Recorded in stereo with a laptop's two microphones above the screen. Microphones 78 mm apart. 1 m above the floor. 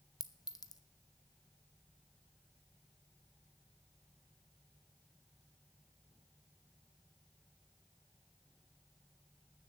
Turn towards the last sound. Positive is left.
turn(degrees=50)  # may be behind; listen again after turning